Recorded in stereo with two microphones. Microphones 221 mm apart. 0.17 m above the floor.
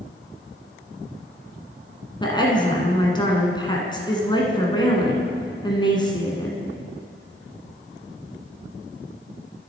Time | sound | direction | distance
2.2 | a woman speaking | 20° left (ahead or behind) | 1.5 m